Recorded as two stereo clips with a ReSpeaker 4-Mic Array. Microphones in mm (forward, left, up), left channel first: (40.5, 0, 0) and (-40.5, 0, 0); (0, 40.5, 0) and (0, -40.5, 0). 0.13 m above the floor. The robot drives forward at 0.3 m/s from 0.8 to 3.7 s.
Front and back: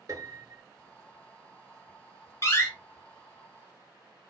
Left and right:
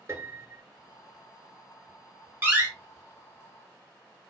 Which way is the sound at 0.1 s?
140° right.